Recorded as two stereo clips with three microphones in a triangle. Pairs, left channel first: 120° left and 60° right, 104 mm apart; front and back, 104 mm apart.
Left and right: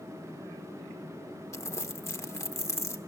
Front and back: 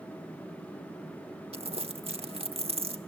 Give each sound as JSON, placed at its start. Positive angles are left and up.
{"t": 1.5, "sound": "crumpling", "azimuth_deg": 180, "distance_m": 0.9}